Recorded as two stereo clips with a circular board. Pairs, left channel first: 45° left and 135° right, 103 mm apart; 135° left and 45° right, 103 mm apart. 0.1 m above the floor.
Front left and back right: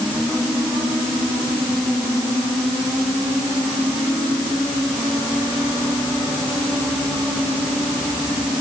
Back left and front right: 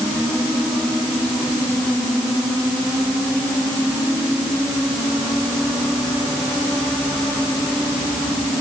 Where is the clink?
No clink in this recording.